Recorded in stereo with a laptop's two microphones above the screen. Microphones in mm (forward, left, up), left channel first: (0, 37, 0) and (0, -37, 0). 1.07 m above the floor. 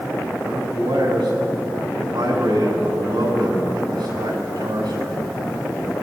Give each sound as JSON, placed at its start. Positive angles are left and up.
{"t": 0.4, "sound": "a man speaking", "side_deg": -85, "distance_m": 7.5}